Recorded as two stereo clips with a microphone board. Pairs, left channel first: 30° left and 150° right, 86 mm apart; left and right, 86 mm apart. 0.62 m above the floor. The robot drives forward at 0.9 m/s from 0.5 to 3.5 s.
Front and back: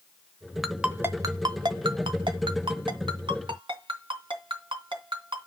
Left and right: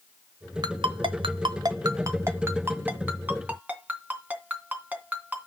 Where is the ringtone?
60° right, 0.9 m; by 5.5 s 160° right, 2.5 m.